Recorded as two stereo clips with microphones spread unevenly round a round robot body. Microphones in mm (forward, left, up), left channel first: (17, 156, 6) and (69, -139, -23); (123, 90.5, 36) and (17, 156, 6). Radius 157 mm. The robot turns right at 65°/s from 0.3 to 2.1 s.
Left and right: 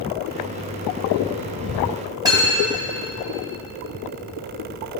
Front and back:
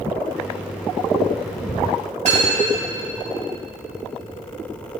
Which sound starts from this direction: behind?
Cutlery clinking, at 2.2 s.